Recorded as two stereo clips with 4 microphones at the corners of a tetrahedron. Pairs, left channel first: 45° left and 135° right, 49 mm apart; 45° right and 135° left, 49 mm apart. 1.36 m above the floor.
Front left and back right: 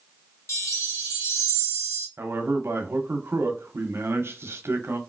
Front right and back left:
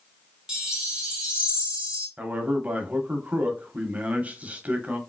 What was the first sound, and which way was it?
A chime, 55° left.